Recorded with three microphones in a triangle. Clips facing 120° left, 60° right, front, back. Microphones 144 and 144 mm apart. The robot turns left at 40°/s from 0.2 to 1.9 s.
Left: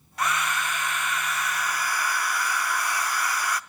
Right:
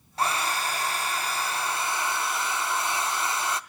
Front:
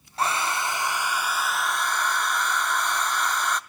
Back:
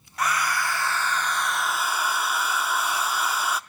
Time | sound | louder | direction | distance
0.2 | a hair dryer | even, even | 35° right | 0.6 m